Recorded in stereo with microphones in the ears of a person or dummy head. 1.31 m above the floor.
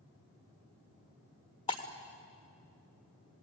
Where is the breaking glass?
25° left (ahead or behind), 1.9 m.